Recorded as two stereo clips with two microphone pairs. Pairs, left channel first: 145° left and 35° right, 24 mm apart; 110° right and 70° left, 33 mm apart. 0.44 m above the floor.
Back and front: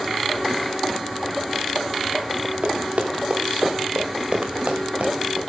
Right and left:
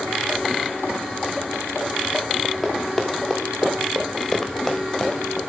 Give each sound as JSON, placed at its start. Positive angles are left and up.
{"t": 2.6, "sound": "running footsteps", "azimuth_deg": -15, "distance_m": 4.5}